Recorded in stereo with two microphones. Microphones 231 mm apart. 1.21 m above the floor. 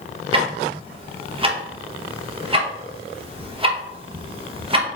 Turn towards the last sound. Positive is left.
turn(degrees=-25)  # may be behind; listen again after turning